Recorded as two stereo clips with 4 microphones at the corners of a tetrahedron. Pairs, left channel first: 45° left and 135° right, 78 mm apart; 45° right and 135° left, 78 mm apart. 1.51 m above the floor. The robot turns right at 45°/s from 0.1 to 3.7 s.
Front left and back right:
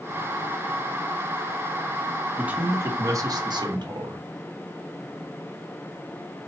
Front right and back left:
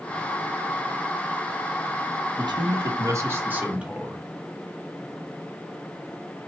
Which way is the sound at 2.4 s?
150° left.